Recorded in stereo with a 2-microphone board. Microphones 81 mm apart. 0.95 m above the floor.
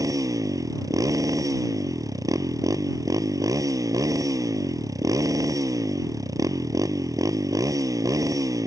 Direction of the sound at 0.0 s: 45° right (ahead or behind).